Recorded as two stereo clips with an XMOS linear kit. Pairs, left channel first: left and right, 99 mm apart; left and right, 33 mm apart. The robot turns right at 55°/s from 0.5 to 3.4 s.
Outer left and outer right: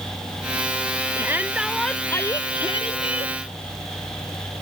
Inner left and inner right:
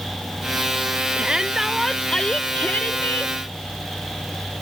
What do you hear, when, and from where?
1.2 s a shout: 30° right; by 3.4 s 90° left